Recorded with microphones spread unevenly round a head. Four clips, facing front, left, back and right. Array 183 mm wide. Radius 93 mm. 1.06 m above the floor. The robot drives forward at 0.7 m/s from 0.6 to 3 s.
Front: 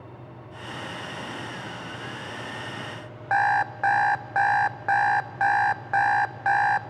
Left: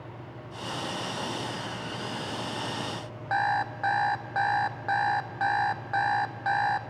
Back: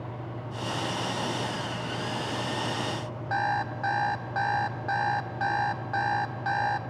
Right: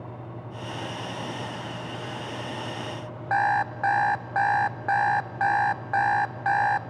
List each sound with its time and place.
3.3 s an alarm clock: 10° right, 0.6 m